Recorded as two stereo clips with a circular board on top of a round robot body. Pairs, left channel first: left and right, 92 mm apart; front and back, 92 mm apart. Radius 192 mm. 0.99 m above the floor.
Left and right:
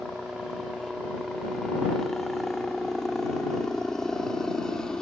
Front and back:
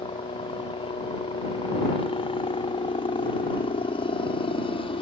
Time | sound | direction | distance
0.0 | a helicopter | straight ahead | ?